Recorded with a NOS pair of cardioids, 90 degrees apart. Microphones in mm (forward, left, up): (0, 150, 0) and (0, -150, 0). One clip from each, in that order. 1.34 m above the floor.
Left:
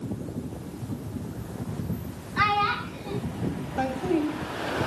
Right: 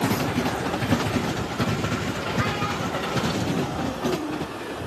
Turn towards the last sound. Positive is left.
turn(degrees=65)